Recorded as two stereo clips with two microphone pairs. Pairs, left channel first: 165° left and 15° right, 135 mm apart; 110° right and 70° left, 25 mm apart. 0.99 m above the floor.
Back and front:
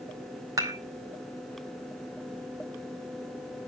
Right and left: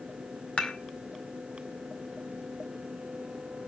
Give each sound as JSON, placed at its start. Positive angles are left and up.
{"t": 0.6, "sound": "dishes clattering", "azimuth_deg": -80, "distance_m": 2.5}